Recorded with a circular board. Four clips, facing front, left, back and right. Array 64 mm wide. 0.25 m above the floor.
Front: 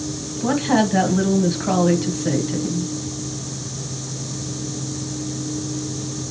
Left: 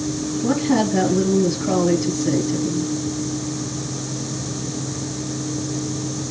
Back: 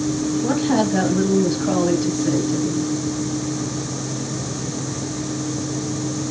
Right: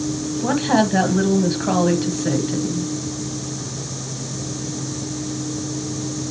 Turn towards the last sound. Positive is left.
turn(degrees=-70)